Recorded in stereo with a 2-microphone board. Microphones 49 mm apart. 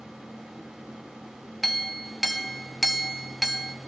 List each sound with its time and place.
1.6 s a clink: centre (ahead or behind), 0.7 m